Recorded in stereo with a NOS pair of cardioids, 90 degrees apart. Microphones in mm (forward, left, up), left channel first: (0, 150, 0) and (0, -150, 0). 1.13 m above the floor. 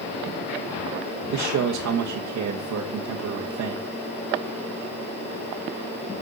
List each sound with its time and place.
1.3 s a man speaking: 65° right, 1.6 m